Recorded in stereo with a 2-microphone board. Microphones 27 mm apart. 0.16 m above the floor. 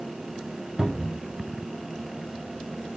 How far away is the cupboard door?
About 0.8 m.